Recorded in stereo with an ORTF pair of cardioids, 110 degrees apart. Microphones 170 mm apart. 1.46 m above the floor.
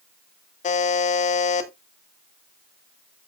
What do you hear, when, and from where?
0.6 s a buzzer: 45° left, 1.8 m